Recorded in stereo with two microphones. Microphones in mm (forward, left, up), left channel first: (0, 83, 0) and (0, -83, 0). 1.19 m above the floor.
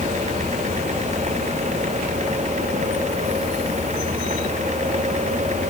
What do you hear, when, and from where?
Only background noise.